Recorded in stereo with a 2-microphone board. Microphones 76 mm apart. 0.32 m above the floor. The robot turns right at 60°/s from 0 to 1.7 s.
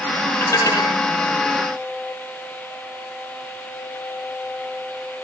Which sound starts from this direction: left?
Dishes clattering, at 0.4 s.